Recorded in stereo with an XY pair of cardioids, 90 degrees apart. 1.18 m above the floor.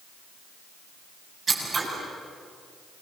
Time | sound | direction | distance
1.5 | scissors | 40° right | 7.5 m